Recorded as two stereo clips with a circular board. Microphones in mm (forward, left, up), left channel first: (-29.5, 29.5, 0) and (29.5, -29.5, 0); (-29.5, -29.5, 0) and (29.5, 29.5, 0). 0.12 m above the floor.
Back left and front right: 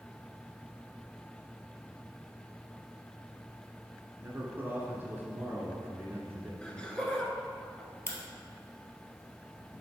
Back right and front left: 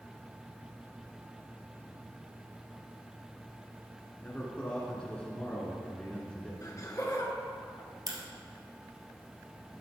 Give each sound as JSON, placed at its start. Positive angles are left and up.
{"t": 4.2, "sound": "a man speaking", "azimuth_deg": -75, "distance_m": 1.6}
{"t": 6.6, "sound": "laughter", "azimuth_deg": -150, "distance_m": 1.5}
{"t": 8.1, "sound": "a crack", "azimuth_deg": 80, "distance_m": 1.4}